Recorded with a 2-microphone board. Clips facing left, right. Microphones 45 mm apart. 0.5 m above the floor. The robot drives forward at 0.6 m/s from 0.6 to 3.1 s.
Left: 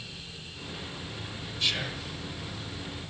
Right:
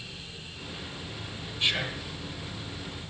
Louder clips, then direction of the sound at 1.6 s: Right 2 dB; 20° right (ahead or behind).